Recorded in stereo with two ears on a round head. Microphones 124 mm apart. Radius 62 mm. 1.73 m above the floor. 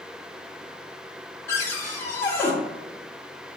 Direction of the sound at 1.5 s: 20° left (ahead or behind).